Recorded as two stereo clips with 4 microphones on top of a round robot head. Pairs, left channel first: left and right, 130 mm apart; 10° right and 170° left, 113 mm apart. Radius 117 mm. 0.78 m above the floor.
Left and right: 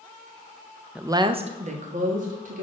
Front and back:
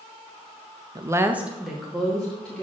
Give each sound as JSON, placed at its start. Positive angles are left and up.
{"t": 0.9, "sound": "a woman speaking", "azimuth_deg": -165, "distance_m": 0.7}